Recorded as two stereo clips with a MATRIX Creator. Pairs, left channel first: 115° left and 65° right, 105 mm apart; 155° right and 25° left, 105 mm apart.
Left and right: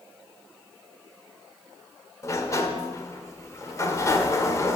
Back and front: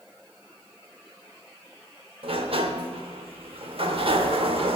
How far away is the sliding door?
About 0.8 m.